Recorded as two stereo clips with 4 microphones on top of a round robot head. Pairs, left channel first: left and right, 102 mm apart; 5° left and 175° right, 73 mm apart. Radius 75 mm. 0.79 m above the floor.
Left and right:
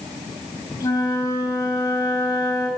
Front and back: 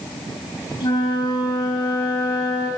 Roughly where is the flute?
Ahead left.